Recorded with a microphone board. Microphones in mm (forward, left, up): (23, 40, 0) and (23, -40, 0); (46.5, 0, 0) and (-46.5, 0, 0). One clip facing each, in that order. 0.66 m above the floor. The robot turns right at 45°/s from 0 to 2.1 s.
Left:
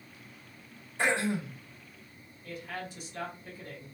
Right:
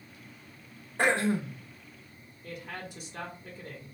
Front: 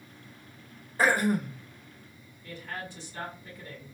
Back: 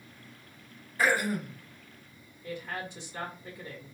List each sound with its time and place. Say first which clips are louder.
1.0 s throat clearing: right 3 dB, front 3 dB; 55° right, 0.7 m; by 1.6 s 30° right, 0.7 m
2.4 s a woman speaking: left 1 dB, back 2 dB; 110° right, 1.8 m